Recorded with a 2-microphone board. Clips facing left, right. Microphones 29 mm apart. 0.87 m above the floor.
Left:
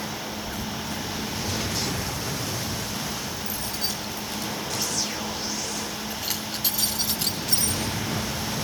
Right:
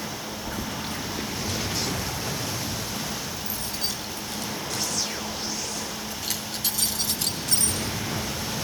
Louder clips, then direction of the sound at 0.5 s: Even; 80° right.